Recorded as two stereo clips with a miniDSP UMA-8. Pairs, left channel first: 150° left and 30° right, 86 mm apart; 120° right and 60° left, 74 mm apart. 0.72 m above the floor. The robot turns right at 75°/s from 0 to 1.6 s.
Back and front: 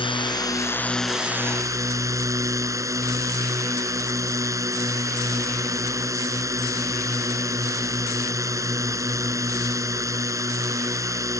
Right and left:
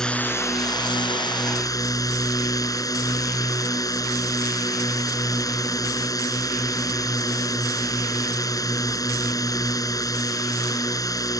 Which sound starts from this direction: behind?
A drone, at 0.0 s.